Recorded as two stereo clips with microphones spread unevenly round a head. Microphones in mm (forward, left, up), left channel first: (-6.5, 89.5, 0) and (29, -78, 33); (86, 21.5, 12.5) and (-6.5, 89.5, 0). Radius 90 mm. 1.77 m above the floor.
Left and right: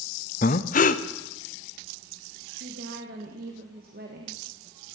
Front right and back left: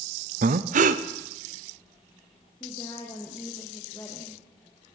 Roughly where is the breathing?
Behind left.